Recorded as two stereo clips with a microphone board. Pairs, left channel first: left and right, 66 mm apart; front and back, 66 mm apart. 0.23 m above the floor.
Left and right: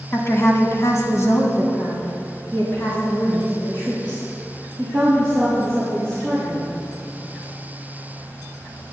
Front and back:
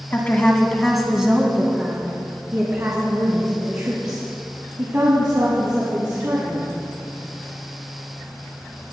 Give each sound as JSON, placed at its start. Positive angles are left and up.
{"t": 0.1, "sound": "a woman speaking", "azimuth_deg": 55, "distance_m": 2.0}